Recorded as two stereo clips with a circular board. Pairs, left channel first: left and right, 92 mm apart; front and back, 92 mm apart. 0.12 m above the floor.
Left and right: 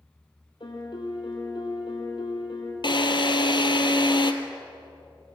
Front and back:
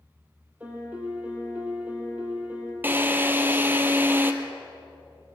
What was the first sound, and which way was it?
A piano, 110° left.